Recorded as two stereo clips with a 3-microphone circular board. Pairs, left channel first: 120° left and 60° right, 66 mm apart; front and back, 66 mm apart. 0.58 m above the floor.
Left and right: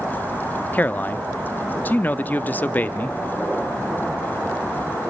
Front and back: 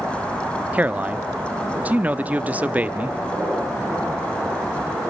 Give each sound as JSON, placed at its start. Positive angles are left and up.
{"t": 0.7, "sound": "a man speaking", "azimuth_deg": 145, "distance_m": 0.6}